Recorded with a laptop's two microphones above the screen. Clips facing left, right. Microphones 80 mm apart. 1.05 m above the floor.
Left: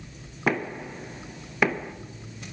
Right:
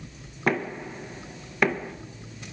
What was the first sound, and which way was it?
Knocking, centre (ahead or behind).